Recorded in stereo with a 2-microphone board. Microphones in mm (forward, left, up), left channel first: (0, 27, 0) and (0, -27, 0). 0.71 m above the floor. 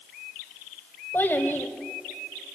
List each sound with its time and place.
1.1 s a child speaking: 40° left (ahead or behind), 1.8 m